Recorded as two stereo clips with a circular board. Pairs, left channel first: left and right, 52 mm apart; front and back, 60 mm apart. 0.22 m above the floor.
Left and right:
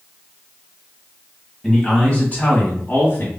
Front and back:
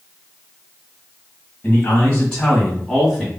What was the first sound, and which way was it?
A man speaking, 15° left.